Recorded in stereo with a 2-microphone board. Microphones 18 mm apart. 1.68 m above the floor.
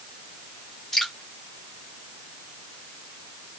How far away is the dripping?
About 2.5 m.